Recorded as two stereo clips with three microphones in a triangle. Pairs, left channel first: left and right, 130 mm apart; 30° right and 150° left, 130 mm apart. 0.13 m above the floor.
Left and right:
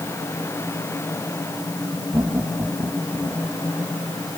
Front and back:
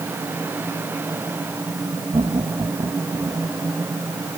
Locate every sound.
2.1 s laughter: 160° right; by 3.5 s 155° right